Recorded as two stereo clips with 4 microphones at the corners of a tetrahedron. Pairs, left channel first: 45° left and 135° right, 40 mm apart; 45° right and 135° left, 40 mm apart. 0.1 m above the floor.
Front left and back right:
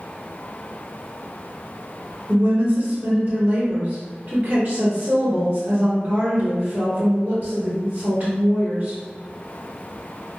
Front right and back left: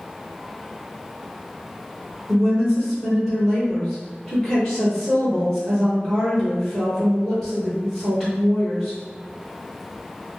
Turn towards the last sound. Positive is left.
turn(degrees=-120)